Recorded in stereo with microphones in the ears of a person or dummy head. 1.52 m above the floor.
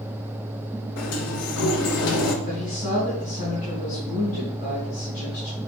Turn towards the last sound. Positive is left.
turn(degrees=40)  # may be behind; listen again after turning